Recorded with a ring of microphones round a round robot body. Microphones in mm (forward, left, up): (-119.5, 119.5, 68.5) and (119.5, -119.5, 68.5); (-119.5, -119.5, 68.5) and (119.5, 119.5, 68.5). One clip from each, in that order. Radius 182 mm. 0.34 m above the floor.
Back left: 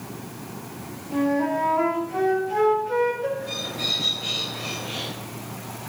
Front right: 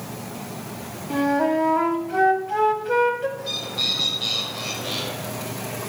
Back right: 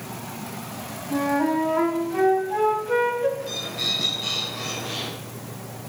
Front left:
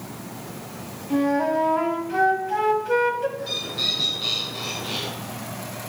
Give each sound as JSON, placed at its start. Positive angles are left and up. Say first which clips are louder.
{"t": 1.1, "sound": "a flute", "louder": "front right 3 dB, front left 1 dB", "azimuth_deg": -15, "distance_m": 2.0}
{"t": 3.4, "sound": "a bird", "louder": "front right 3 dB, front left 2 dB", "azimuth_deg": -20, "distance_m": 4.5}